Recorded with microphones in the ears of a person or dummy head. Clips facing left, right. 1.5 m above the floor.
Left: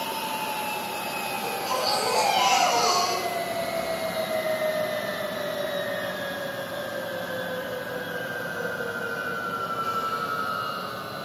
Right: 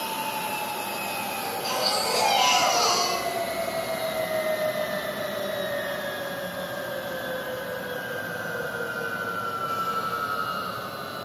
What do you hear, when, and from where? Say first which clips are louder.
1.4 s a baby crying: left 1 dB; 35° right (ahead or behind), 5.5 m